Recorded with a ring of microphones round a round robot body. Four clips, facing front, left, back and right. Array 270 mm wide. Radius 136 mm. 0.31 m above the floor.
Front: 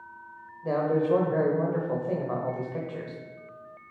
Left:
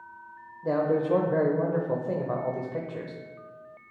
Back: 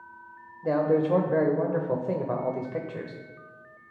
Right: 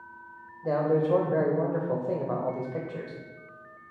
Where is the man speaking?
170° left, 0.9 m.